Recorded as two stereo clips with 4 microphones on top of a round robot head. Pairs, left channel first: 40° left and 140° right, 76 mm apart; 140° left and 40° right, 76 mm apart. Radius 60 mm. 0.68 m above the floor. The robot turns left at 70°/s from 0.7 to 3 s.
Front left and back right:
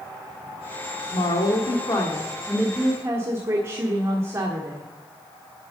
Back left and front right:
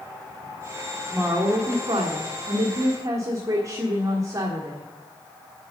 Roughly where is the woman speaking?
Ahead left.